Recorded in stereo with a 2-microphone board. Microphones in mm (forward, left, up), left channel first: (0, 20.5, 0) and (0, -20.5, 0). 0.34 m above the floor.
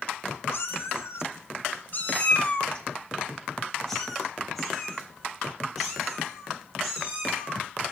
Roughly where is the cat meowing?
Left.